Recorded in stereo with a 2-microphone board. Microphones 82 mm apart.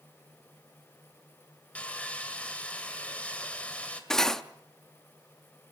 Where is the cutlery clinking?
5° left (ahead or behind), 0.7 m.